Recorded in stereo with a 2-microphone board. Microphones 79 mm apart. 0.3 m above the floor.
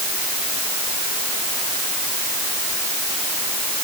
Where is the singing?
No singing in this recording.